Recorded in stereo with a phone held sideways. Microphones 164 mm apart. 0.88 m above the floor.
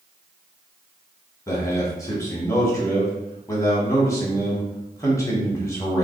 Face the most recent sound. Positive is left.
turn(degrees=20)  # may be behind; listen again after turning